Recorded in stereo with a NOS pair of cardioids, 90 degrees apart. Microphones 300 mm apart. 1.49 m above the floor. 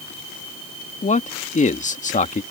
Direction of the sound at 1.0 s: 25° left.